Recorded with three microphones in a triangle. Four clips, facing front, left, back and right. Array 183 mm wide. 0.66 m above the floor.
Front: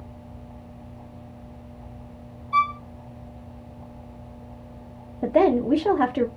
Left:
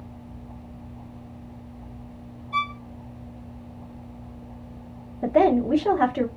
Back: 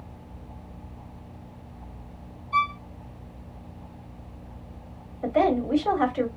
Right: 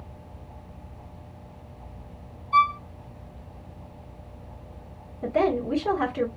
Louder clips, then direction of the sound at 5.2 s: Left 5 dB, front 4 dB; 20° left.